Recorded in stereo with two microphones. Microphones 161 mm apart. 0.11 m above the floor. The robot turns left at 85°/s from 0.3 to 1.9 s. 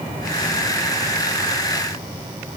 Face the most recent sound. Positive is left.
No sound to turn to.